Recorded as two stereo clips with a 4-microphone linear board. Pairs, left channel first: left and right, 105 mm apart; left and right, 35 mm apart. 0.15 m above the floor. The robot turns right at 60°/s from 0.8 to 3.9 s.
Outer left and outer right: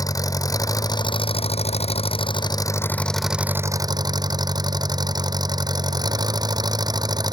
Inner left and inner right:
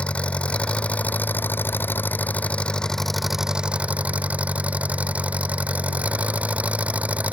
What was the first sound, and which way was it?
An engine running, 35° left.